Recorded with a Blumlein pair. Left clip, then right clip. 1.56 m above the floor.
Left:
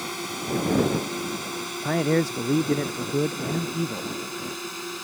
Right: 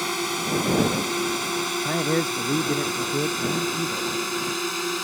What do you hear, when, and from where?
0.0 s a drone: 20° right
1.8 s a man speaking: 10° left